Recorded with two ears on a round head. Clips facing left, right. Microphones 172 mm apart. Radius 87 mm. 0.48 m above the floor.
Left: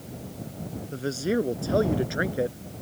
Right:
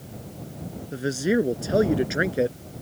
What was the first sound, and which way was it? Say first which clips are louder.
A man speaking: right 3 dB; 15° right (ahead or behind).